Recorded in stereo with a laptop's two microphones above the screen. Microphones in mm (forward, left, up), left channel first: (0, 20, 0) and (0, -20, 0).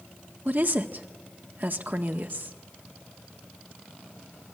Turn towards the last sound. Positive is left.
turn(degrees=-50)  # may be behind; listen again after turning